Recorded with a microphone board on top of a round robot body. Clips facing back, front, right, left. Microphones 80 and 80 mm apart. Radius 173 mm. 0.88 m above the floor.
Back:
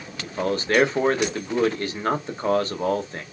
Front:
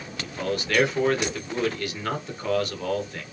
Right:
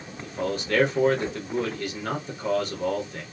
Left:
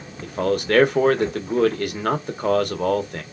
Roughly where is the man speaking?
Behind left.